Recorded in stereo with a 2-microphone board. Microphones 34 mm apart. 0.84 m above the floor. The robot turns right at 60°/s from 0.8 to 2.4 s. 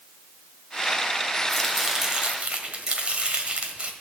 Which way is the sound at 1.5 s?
170° left.